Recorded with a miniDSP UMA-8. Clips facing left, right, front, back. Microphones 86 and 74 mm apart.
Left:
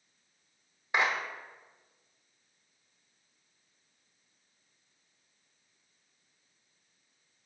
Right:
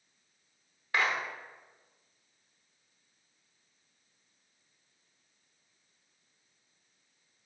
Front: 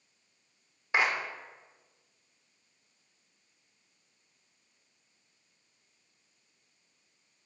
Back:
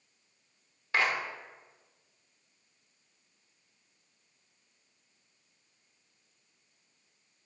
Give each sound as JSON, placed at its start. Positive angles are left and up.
{"t": 0.9, "sound": "a clap", "azimuth_deg": 45, "distance_m": 1.0}